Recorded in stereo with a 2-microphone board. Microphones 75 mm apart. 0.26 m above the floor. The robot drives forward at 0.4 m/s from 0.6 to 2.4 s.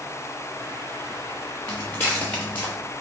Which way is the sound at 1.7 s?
30° left (ahead or behind).